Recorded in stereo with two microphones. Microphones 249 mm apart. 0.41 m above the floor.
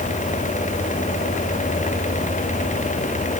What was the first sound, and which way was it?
Only background noise.